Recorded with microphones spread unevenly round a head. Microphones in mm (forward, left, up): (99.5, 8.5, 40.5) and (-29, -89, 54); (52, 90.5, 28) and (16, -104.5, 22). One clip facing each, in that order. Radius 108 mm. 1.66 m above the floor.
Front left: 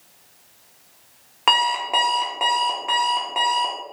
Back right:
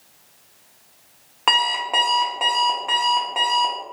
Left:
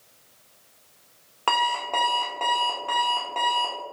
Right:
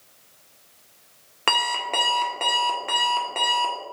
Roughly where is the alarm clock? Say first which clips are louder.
Front left 1 dB, left 1 dB; ahead right.